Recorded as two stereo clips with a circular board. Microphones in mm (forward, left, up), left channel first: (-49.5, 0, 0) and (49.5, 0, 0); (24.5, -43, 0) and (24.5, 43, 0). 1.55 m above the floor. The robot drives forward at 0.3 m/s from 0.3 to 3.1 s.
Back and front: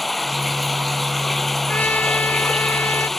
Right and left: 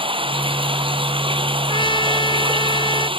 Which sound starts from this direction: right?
A trumpet, at 1.7 s.